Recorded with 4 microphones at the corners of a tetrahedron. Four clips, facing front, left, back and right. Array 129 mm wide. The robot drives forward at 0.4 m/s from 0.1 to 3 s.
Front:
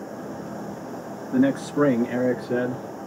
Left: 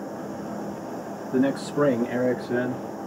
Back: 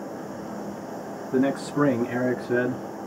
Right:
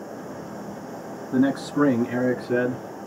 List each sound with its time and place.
1.3 s a man speaking: 95° right, 1.1 m; by 2.8 s 145° right, 1.3 m